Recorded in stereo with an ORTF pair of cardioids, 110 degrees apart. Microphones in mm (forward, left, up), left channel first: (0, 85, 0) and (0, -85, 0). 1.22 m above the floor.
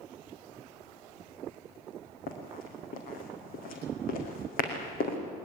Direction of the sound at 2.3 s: 65° left.